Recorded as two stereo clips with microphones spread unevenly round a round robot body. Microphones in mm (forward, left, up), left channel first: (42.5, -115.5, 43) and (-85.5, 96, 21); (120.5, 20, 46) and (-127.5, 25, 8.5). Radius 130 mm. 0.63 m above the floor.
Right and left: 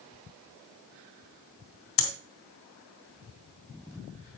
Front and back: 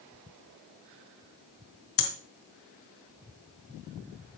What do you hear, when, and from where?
2.0 s breathing: 55° right, 1.5 m